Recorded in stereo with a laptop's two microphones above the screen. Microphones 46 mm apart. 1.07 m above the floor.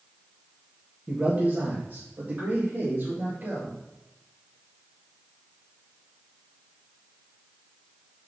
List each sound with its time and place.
1.1 s a man speaking: 35° right (ahead or behind), 1.3 m; by 3.8 s 45° right (ahead or behind), 2.5 m